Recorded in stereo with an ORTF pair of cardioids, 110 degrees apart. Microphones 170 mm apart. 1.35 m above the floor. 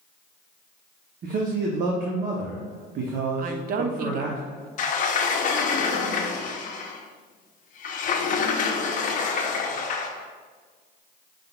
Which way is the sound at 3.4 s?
55° right.